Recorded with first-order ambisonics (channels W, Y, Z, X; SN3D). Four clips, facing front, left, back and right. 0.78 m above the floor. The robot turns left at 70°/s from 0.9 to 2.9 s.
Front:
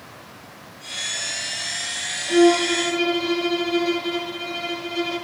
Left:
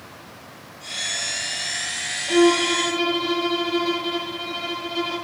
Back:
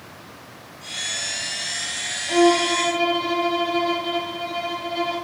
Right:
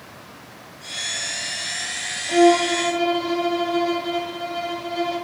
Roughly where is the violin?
Left.